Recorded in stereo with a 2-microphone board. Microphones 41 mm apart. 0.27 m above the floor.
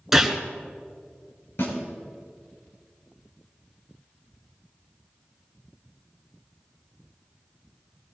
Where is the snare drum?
70° left (ahead or behind), 6 m.